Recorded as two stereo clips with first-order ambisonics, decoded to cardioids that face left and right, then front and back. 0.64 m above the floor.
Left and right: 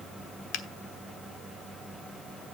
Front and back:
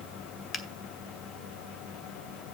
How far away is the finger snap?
About 1.1 m.